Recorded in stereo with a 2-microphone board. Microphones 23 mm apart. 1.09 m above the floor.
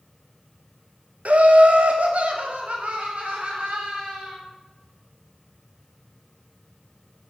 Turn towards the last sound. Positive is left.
turn(degrees=-55)  # may be behind; listen again after turning